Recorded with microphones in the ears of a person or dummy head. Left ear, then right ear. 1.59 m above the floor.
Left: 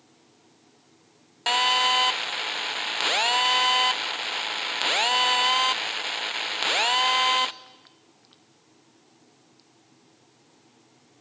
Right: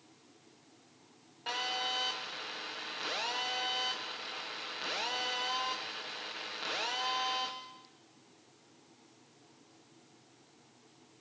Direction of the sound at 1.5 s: 40° left (ahead or behind).